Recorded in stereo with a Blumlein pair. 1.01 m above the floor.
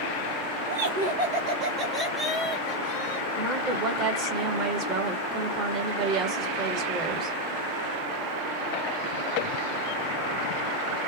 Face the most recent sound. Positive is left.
turn(degrees=-35)